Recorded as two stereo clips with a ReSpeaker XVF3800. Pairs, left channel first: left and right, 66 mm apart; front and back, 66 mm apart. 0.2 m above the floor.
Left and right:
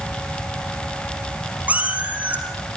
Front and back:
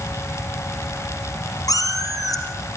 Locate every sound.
1.7 s a cat meowing: 25° right, 2 m